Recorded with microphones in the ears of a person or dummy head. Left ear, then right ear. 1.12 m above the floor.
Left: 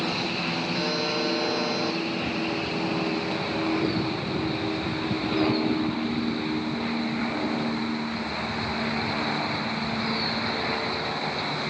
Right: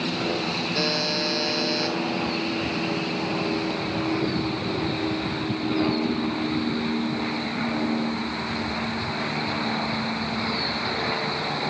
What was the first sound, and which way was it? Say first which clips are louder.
A buzzer: right 4 dB; 15° left (ahead or behind).